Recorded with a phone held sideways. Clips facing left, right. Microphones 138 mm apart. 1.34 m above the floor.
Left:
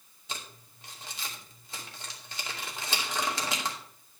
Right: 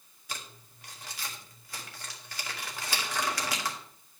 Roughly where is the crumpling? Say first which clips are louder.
Left 1 dB; left.